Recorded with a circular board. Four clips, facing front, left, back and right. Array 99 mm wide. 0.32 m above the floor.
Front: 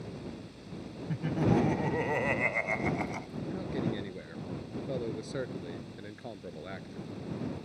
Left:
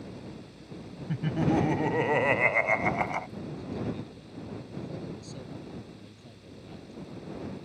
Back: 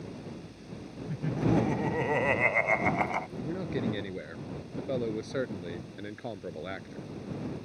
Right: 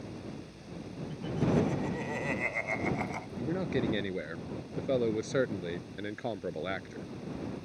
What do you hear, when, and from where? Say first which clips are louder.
1.1 s laughter: left 3 dB, even; 75° left; by 3.3 s 140° left
3.4 s a man speaking: right 5 dB, back 2 dB; 105° right